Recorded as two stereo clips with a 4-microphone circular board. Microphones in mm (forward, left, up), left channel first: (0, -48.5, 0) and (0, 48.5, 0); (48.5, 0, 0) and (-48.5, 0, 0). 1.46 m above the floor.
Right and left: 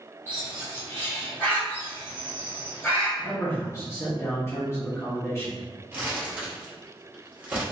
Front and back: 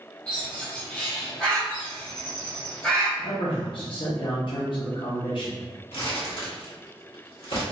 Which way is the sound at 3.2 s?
30° right.